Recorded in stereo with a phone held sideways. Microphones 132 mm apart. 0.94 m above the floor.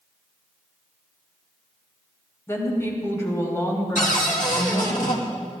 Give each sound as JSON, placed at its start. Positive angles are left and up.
{"t": 2.5, "sound": "a woman speaking", "side_deg": 20, "distance_m": 3.5}
{"t": 4.0, "sound": "a cupboard door", "side_deg": 80, "distance_m": 1.6}